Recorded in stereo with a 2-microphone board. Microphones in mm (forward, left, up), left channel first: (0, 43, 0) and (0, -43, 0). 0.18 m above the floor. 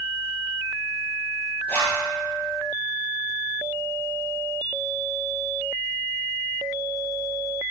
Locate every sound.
1.7 s a zipper: 20° left (ahead or behind), 1.7 m